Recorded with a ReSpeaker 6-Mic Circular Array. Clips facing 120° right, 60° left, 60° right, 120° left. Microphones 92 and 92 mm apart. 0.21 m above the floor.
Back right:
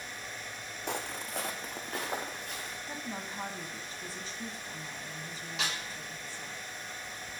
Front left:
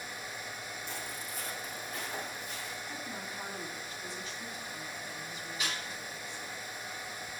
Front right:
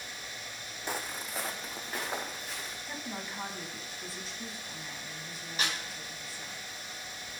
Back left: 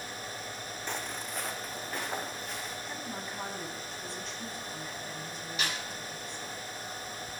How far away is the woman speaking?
About 1.4 m.